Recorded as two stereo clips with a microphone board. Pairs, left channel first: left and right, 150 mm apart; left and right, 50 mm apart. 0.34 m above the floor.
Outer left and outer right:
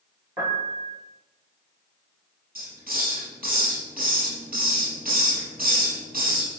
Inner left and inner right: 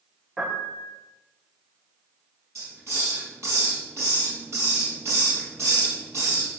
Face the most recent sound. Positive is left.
turn(degrees=-75)  # may be behind; listen again after turning